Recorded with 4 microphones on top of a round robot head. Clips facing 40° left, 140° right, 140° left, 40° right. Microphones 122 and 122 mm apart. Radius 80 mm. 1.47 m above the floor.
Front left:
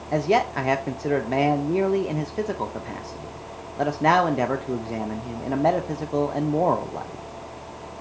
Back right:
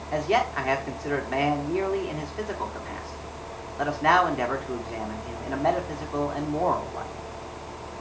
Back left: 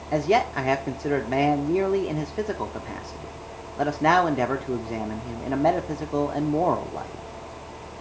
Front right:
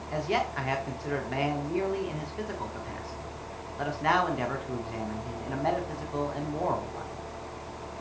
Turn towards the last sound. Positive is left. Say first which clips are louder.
# front left 3 dB, back left 8 dB
turn(degrees=90)